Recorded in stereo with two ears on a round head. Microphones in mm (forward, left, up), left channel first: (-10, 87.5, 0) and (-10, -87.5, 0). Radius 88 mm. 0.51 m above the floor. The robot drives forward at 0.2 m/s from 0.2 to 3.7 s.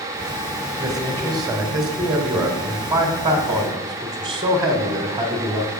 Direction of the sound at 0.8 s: 20° right (ahead or behind).